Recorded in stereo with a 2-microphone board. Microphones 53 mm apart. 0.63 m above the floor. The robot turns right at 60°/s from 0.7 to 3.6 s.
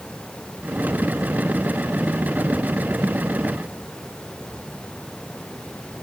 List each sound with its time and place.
Only background noise.